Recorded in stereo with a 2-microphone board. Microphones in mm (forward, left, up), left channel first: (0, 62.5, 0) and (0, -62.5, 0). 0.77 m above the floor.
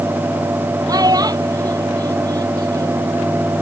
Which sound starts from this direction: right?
A child speaking, at 0.9 s.